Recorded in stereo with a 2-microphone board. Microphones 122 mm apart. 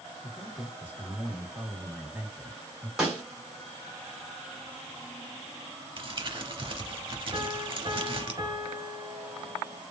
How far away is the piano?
About 1.0 m.